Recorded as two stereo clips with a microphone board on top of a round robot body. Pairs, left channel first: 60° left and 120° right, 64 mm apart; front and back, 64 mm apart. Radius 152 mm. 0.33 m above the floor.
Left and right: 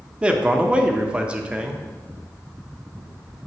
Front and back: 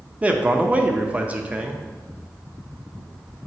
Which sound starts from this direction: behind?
A man speaking, at 0.2 s.